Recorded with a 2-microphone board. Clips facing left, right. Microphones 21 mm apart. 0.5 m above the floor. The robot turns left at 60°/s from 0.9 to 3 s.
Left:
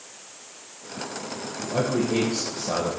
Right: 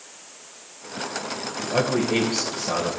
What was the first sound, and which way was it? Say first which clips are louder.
A man speaking: right 2 dB; 110° right.